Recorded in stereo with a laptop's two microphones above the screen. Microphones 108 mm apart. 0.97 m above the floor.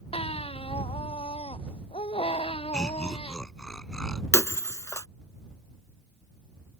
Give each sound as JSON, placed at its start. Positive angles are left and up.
{"t": 0.1, "sound": "a baby crying", "side_deg": 65}
{"t": 2.7, "sound": "laughter", "side_deg": 5}
{"t": 4.3, "sound": "breaking glass", "side_deg": 30}